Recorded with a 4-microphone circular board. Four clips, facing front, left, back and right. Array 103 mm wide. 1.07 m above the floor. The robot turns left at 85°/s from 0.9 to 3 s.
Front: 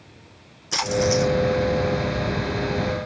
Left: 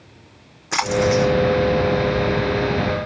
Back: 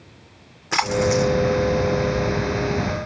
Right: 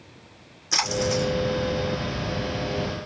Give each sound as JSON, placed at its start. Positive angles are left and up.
{"t": 0.7, "sound": "a splash", "azimuth_deg": 140, "distance_m": 0.7}